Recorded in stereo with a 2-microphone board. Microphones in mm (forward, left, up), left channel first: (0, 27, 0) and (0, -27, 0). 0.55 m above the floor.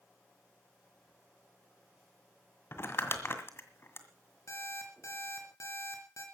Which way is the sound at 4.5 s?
60° left (ahead or behind).